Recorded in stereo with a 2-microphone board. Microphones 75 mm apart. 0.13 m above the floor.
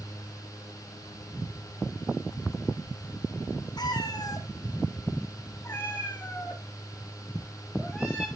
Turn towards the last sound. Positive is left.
turn(degrees=0)  # may be behind; listen again after turning